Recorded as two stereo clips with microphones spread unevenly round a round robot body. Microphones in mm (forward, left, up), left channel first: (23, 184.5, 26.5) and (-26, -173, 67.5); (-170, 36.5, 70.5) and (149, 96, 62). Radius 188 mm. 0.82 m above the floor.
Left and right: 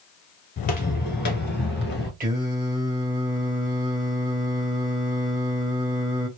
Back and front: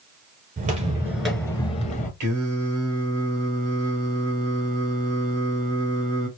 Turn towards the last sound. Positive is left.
turn(degrees=-30)